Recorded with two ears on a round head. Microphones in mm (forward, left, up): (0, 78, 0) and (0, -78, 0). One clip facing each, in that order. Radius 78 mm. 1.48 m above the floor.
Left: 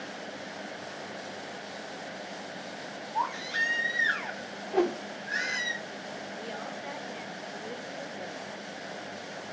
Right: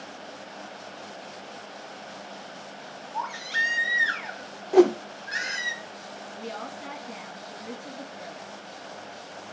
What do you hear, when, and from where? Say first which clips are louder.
3.1 s a baby crying: left 1 dB; 40° right (ahead or behind), 1.9 m
4.7 s a whoosh: right 9 dB; 55° right (ahead or behind), 0.5 m
6.3 s a woman speaking: right 5 dB; 85° right, 3.5 m